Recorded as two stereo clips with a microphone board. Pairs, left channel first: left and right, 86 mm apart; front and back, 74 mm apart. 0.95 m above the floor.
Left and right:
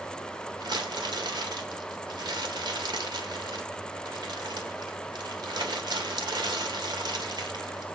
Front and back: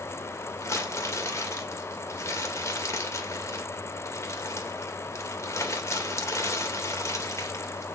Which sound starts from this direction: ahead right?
Crumpling, at 0.6 s.